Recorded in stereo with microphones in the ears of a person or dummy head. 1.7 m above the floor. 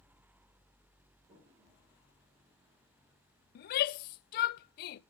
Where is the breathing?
I don't hear breathing.